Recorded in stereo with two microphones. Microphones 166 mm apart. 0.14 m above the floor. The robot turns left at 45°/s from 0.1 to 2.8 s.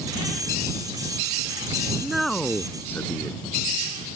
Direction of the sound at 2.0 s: 5° right (ahead or behind).